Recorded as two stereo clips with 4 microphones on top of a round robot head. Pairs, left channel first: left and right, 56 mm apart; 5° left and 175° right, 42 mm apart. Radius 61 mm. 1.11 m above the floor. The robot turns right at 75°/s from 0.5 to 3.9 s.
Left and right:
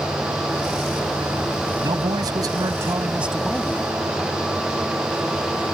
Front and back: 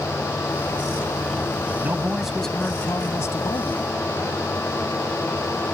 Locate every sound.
1.8 s a man speaking: 125° right; by 3.8 s 25° left